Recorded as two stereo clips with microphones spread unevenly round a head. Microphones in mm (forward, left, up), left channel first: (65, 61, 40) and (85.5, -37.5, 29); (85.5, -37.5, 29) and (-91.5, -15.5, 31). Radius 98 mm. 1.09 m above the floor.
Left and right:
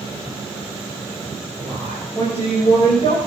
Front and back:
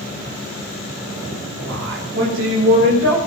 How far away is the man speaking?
About 6.5 m.